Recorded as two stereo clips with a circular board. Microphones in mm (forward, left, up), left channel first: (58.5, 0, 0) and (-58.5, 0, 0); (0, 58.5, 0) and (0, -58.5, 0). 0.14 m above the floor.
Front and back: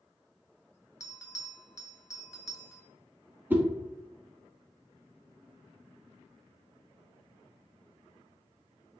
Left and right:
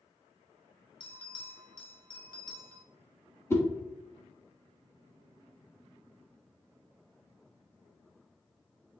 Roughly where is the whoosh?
Behind left.